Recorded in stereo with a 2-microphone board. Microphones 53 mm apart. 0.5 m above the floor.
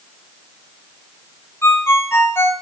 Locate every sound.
1.6 s a ringtone: 60° left (ahead or behind), 1.7 m